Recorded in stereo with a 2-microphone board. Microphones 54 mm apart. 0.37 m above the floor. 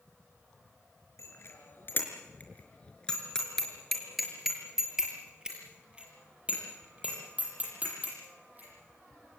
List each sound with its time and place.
1.2 s a bicycle bell: 55° left (ahead or behind), 4.5 m; by 8.7 s 30° right (ahead or behind), 11 m